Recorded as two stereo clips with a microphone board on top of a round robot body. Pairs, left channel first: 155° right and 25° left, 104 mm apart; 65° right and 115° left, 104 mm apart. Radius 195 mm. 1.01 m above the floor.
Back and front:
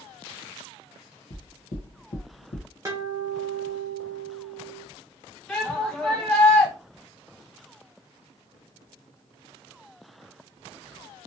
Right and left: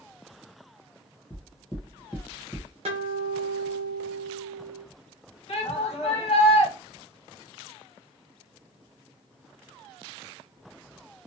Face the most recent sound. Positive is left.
turn(degrees=-75)